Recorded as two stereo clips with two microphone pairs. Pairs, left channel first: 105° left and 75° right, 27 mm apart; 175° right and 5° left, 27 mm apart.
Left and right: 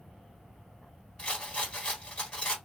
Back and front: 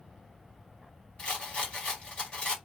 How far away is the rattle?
About 1.2 m.